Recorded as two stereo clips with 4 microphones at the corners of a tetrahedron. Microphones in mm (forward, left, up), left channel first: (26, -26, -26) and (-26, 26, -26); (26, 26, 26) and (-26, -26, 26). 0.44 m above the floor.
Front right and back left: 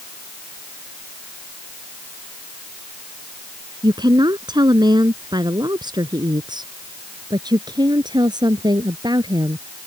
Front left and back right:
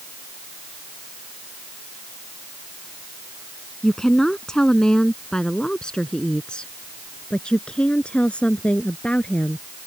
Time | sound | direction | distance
3.8 | a woman speaking | 130° left | ?